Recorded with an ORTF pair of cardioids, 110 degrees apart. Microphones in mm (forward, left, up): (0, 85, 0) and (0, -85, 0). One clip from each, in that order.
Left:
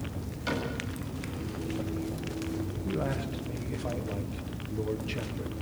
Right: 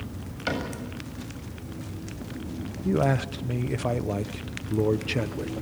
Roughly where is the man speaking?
Ahead right.